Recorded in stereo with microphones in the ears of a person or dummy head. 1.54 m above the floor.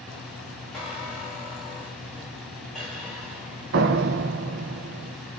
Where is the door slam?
45° right (ahead or behind), 0.7 m.